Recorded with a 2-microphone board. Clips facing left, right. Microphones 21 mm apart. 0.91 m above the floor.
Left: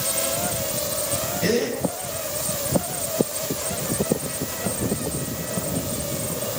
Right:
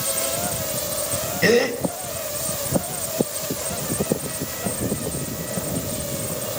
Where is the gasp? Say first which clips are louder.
Right 6 dB; 75° right (ahead or behind), 4 m.